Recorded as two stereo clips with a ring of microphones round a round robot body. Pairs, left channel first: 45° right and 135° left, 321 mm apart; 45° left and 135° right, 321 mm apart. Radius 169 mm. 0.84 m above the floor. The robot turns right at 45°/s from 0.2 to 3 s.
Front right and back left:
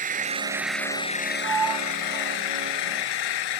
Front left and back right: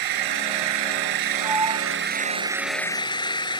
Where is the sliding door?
135° left; by 3.0 s 150° right.